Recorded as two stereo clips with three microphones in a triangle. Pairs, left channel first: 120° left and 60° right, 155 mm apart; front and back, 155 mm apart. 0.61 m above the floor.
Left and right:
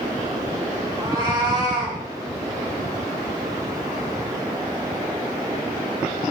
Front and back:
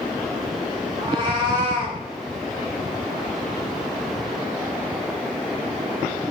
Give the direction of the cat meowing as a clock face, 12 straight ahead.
4 o'clock.